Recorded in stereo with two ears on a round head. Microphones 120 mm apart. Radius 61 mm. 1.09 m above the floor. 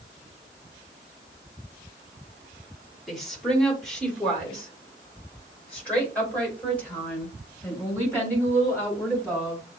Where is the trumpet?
No trumpet in this recording.